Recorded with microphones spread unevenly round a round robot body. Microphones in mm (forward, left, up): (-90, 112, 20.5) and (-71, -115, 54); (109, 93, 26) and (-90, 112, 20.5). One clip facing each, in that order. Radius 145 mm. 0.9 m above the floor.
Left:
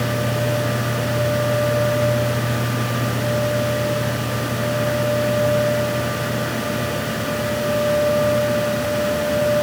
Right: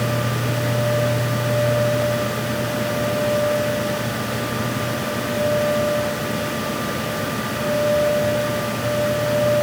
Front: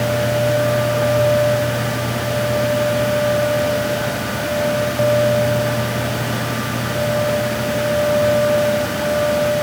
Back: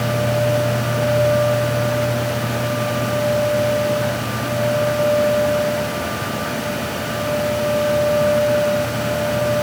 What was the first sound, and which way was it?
Only background noise.